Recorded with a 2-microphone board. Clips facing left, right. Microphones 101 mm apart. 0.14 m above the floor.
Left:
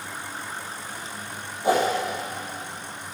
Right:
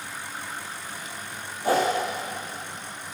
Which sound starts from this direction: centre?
A whoosh, at 1.6 s.